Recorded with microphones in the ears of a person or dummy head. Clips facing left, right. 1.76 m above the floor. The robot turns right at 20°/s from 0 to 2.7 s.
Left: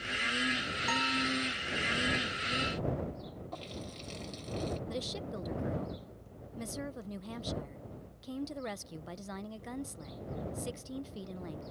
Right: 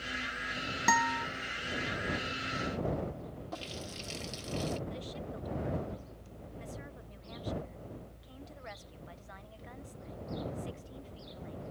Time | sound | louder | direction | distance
0.9 | a guitar | right 3 dB | 70° right (ahead or behind) | ?
3.5 | a running tap | right 1 dB | 5° right (ahead or behind) | ?
4.9 | a woman speaking | left 3 dB | 60° left (ahead or behind) | ?